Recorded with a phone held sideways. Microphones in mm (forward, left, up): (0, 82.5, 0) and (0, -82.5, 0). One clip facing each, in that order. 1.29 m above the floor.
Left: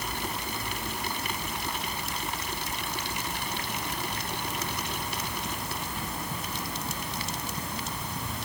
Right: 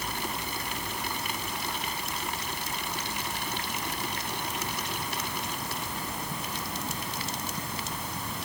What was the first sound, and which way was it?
Only background noise.